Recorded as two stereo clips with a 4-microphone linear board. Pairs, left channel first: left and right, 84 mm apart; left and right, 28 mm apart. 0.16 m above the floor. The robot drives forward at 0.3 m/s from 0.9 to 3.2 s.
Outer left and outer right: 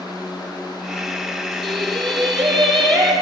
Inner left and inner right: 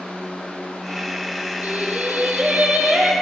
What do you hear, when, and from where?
1.6 s singing: 80° right, 2.5 m; by 3.1 s 75° right (ahead or behind), 2.5 m